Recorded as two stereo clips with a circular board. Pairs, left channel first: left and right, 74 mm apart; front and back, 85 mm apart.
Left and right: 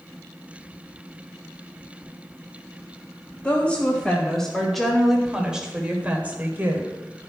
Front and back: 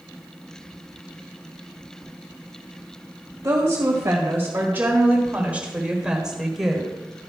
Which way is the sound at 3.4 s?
145° left.